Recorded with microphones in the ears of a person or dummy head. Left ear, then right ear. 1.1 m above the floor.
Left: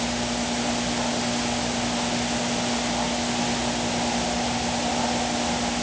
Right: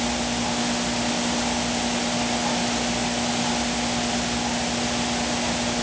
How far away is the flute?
I don't hear a flute.